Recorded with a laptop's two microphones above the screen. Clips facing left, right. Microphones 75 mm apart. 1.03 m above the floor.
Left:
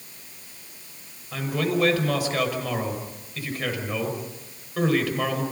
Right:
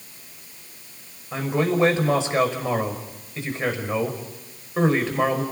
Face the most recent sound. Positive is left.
turn(degrees=-25)  # may be behind; listen again after turning